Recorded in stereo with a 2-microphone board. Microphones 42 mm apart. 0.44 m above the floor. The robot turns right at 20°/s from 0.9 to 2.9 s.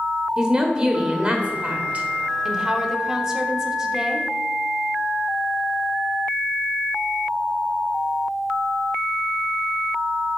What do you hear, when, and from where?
0.4 s a woman speaking: 20° right (ahead or behind), 1.1 m; by 2.1 s 35° right (ahead or behind), 1.1 m
2.5 s a woman speaking: 10° right (ahead or behind), 0.7 m; by 4.3 s 15° right (ahead or behind), 0.7 m